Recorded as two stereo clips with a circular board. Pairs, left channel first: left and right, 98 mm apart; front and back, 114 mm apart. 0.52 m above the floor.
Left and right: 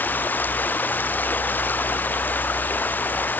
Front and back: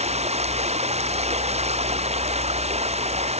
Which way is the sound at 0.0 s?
160° left.